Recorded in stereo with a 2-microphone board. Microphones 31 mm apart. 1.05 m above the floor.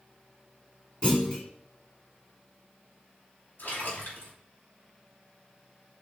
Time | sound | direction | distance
1.0 | a clunk | 35° left (ahead or behind) | 3 m
3.6 | a splash | 70° left (ahead or behind) | 2.5 m